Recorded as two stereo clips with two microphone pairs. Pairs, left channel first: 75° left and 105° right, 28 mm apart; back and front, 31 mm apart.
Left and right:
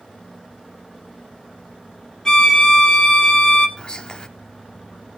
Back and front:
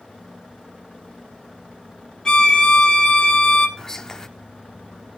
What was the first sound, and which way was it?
A violin, 125° left.